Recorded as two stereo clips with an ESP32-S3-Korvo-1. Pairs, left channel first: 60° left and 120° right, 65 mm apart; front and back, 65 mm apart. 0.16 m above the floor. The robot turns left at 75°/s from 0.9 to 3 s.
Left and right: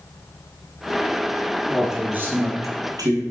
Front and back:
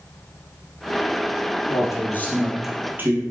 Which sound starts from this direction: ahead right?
A man speaking, at 1.7 s.